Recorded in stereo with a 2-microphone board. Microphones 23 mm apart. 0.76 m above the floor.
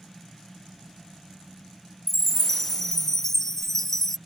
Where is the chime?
20° left (ahead or behind).